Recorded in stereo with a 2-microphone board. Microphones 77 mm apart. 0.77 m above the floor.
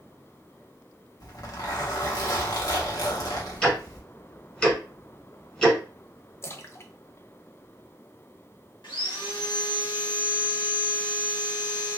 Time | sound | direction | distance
1.2 | a zipper | 55° left (ahead or behind) | 1.1 m
3.6 | ticking | 10° left (ahead or behind) | 1.3 m
6.4 | a splash | 35° left (ahead or behind) | 0.5 m
8.8 | sawing | 75° left (ahead or behind) | 1.4 m